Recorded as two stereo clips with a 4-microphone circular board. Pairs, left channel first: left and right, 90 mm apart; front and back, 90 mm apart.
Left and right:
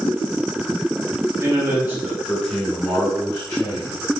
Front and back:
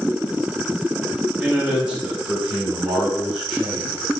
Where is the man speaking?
110° right, 1.5 m; by 4.0 s 90° left, 1.9 m.